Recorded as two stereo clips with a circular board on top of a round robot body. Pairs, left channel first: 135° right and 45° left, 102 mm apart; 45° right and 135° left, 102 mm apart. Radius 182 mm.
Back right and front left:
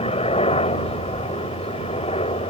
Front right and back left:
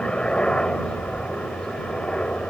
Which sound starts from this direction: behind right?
A helicopter, at 0.0 s.